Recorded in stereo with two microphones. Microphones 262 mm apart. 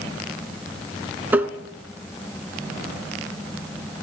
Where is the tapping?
5° right (ahead or behind), 0.9 m.